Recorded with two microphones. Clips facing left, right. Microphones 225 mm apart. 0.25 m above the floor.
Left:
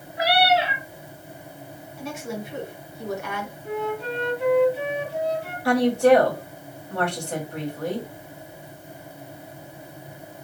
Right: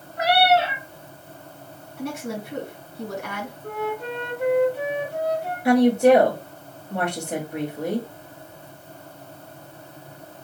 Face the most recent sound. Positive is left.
turn(degrees=-20)  # may be behind; listen again after turning